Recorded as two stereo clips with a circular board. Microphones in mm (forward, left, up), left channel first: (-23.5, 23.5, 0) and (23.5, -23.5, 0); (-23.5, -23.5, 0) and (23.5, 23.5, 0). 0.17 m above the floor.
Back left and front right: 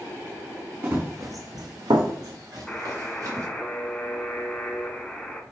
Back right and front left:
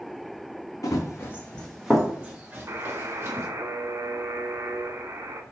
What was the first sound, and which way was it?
Running footsteps, 105° right.